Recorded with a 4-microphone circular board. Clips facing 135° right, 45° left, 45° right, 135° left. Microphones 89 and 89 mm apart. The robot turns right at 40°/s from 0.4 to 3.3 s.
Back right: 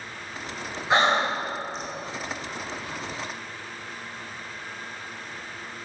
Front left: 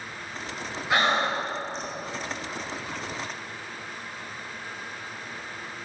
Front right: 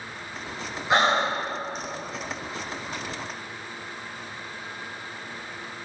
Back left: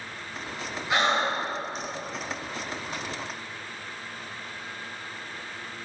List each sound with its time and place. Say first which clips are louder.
0.9 s breathing: back right 2 dB, front right 3 dB; 85° right, 1.5 m; by 1.9 s 50° right, 1.5 m